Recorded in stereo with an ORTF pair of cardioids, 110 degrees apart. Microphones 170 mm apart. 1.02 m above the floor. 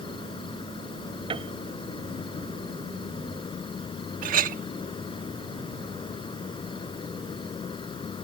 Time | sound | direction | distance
0.0 | an insect | 30° left | ?
1.3 | a piano | 30° right | ?
4.2 | a clink | 55° right | ?